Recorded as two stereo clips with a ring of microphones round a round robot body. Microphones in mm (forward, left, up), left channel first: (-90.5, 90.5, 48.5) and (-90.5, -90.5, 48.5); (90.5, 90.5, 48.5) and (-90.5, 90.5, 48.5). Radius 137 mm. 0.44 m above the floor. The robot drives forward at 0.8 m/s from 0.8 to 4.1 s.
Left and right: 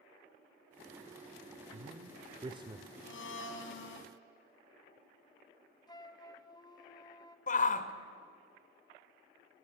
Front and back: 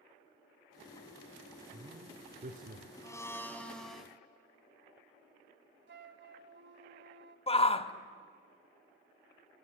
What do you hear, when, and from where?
1.7 s a man speaking: 120° right, 1.3 m; by 2.9 s 155° right, 1.8 m
3.0 s a blender: 70° left, 2.5 m; by 4.1 s 90° left, 2.5 m
5.9 s a flute: 155° left, 1.7 m
7.5 s a shout: 50° left, 1.5 m